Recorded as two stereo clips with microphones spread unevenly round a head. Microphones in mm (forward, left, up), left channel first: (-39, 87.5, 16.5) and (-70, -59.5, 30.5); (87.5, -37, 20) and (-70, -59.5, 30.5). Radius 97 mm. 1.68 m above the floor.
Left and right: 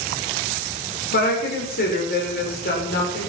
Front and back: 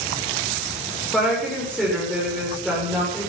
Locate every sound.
1.1 s a woman speaking: 95° left, 5.5 m